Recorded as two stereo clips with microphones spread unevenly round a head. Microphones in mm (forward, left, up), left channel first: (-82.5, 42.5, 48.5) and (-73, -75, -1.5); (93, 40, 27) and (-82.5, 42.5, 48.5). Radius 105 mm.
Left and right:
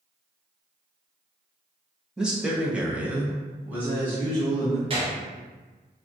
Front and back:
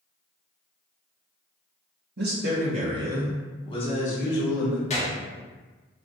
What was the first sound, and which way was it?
A man speaking, 155° right.